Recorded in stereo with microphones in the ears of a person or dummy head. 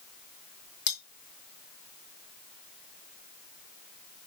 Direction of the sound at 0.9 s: 55° left (ahead or behind).